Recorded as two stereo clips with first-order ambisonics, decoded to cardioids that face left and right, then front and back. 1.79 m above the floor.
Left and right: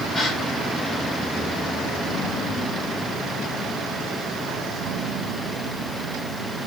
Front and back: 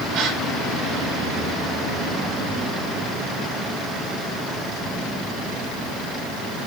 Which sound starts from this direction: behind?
A gasp, at 0.1 s.